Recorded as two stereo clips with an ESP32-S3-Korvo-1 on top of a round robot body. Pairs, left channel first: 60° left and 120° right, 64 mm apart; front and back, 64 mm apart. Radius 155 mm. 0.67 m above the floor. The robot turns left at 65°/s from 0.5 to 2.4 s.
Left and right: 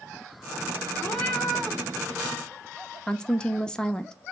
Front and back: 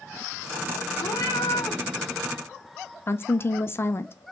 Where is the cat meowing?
Straight ahead, 0.8 m; by 1.8 s 50° right, 0.8 m.